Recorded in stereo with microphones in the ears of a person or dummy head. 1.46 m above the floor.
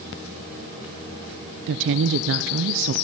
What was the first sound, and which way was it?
A woman speaking, 70° right (ahead or behind).